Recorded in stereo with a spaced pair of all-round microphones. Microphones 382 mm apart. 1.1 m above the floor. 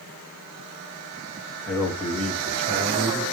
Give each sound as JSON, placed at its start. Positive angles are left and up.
{"t": 1.7, "sound": "a man speaking", "side_deg": 5, "distance_m": 1.3}